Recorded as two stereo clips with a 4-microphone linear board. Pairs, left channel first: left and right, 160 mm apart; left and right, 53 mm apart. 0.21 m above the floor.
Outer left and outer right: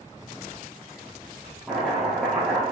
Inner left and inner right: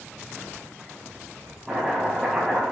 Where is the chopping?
Centre (ahead or behind), 3 m.